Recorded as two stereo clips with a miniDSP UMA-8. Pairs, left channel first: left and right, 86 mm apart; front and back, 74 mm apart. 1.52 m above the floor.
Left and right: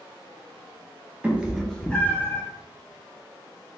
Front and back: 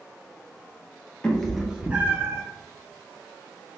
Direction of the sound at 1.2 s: 50° right.